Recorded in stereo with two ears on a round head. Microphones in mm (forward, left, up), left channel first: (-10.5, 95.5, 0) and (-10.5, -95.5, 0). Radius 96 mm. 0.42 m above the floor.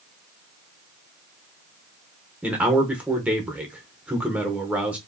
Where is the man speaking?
5° right (ahead or behind), 1.0 m.